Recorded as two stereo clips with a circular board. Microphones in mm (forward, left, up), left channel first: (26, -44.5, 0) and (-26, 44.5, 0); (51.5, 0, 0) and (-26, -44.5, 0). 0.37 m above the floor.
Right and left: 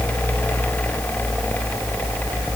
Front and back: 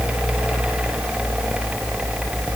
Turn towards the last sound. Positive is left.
No sound to turn to.